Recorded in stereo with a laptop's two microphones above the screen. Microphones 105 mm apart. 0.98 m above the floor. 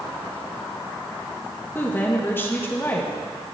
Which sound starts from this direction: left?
A woman speaking, at 1.8 s.